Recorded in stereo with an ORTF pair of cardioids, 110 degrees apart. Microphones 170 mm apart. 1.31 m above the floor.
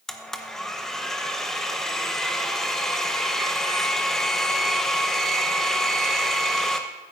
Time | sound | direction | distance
0.1 | a blender | straight ahead | 1.0 m